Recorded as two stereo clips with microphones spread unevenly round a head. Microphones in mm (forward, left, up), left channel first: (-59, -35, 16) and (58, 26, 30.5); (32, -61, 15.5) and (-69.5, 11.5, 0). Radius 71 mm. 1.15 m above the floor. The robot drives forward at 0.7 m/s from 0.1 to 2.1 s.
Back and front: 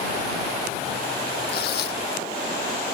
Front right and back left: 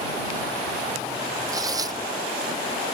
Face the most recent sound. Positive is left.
turn(degrees=-155)